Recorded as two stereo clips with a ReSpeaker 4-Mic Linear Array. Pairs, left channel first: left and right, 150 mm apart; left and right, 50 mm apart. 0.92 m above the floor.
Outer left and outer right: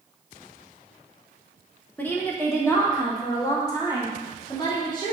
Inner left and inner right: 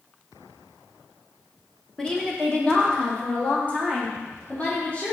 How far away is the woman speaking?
About 1.2 m.